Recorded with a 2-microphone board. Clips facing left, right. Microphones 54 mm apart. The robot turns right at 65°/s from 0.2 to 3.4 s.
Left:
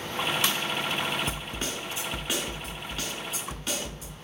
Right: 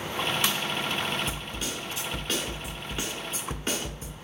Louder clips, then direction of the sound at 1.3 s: Left 1 dB; 100° left.